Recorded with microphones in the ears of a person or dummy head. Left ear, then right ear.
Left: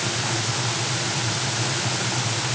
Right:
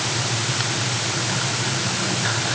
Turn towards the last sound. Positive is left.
No sound to turn to.